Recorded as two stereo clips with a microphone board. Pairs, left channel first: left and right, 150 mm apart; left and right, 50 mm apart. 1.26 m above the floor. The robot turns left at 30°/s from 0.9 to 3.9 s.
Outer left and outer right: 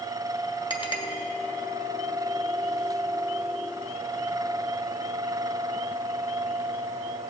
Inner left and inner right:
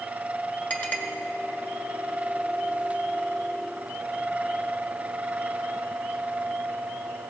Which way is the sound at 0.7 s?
35° left (ahead or behind).